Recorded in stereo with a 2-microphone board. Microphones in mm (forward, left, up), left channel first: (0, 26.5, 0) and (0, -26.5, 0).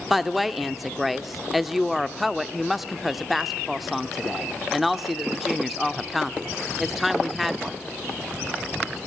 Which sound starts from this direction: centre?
A woman speaking, at 0.1 s.